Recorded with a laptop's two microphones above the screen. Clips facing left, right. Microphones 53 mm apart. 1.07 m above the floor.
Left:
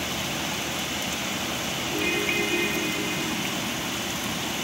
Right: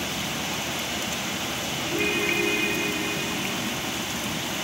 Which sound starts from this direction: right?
A ringtone, at 1.9 s.